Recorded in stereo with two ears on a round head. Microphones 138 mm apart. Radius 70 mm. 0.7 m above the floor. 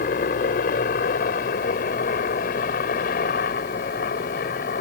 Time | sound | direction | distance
0.0 | a helicopter | 65° left (ahead or behind) | ?